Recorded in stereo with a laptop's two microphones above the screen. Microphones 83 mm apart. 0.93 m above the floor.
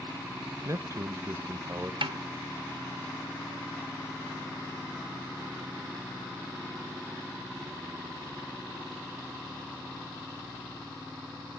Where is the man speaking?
40° right (ahead or behind), 1.1 m.